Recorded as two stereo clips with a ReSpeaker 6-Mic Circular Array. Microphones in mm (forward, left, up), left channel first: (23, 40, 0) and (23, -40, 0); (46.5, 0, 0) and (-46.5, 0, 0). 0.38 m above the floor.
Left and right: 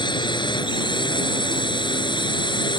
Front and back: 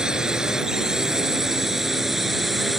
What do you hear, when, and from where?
0.0 s a drone: 95° left; by 2.8 s 90° left